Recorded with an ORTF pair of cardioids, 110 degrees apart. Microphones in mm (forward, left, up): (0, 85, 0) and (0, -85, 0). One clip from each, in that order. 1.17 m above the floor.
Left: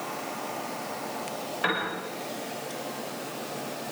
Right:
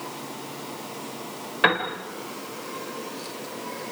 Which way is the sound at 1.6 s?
50° right.